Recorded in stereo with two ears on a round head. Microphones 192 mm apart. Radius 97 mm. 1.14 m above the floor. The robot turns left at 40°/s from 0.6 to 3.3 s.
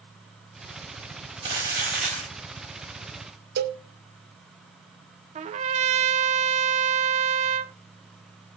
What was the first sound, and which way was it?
Crumpling, 150° right.